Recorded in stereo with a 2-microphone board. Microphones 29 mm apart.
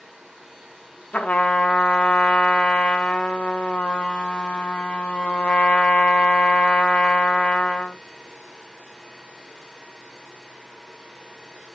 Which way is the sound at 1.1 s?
65° left (ahead or behind).